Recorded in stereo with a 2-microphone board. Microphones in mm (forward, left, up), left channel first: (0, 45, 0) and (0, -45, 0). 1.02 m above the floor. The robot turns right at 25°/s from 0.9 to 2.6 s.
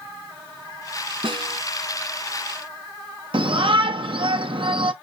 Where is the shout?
65° right (ahead or behind), 0.7 m.